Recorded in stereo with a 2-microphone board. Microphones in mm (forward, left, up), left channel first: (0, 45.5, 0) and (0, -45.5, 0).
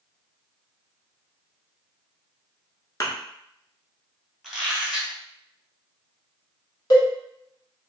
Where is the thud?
35° left (ahead or behind), 0.7 m.